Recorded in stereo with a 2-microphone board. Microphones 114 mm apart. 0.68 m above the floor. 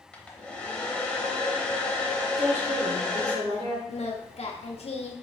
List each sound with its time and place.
0.1 s a hair dryer: 10° left (ahead or behind), 0.7 m
2.4 s a woman speaking: 70° right (ahead or behind), 1.7 m
3.9 s singing: 65° left (ahead or behind), 0.6 m